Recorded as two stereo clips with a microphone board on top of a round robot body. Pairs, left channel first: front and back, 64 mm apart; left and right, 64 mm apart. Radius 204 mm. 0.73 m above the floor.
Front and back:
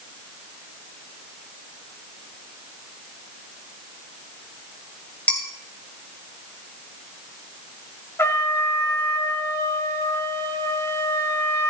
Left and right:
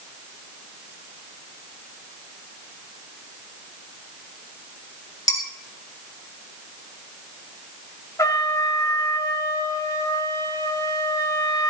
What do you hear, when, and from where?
5.3 s dishes clattering: 70° left, 3 m
8.2 s a trumpet: 50° left, 1.3 m